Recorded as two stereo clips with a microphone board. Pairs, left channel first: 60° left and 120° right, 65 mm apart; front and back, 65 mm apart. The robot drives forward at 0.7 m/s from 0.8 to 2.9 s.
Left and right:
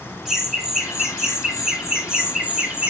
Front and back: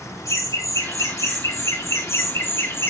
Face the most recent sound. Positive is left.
turn(degrees=-40)